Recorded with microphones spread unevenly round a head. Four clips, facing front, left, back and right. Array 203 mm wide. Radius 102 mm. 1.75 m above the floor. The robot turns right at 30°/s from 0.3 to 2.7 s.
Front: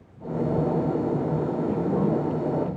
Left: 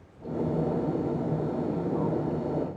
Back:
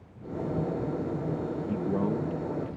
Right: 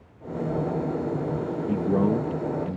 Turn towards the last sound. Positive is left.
turn(degrees=-80)